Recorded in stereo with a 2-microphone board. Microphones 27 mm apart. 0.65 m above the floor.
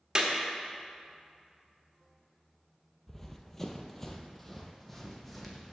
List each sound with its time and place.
0.1 s a clap: 30° right (ahead or behind), 0.9 m
3.1 s running footsteps: 15° left (ahead or behind), 0.7 m; by 5.7 s 5° left (ahead or behind), 1.4 m